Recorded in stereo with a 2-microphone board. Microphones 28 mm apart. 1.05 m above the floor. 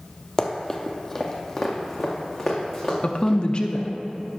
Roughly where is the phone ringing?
No phone ringing in this recording.